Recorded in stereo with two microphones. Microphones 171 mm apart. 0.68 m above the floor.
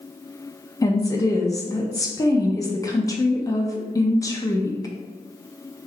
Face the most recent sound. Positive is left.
turn(degrees=20)  # may be behind; listen again after turning